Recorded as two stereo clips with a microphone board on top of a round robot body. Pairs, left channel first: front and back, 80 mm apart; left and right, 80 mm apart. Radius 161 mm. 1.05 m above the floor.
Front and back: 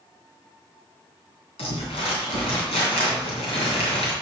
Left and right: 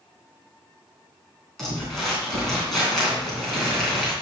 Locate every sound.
1.6 s crumpling: 5° left, 3 m